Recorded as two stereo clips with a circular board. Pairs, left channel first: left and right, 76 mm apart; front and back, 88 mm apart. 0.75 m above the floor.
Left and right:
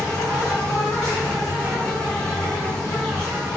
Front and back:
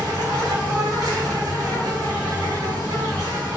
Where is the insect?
170° left, 2 m.